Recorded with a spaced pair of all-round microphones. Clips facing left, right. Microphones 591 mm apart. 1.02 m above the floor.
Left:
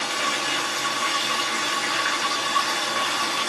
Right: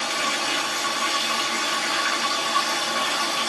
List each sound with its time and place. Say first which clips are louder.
0.0 s running water: even; 50° right (ahead or behind), 0.9 m